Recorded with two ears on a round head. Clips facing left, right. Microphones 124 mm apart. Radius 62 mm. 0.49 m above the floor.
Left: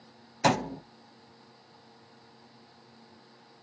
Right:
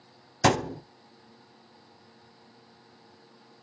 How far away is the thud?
About 1.1 m.